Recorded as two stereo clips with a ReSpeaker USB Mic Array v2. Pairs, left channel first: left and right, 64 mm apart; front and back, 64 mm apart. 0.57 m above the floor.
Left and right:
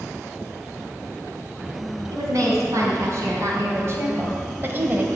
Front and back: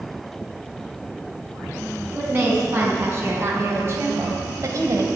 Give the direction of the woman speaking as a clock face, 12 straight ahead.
4 o'clock.